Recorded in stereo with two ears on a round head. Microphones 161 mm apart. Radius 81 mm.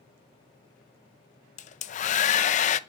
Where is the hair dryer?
40° left (ahead or behind), 0.6 m.